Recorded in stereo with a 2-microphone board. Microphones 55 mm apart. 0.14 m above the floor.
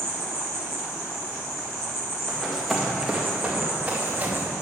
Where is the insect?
65° left (ahead or behind), 2.5 m.